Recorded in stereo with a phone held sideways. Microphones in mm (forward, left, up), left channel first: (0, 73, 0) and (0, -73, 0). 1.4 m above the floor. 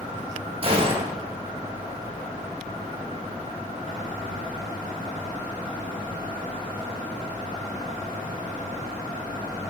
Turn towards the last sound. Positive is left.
turn(degrees=-40)  # may be behind; listen again after turning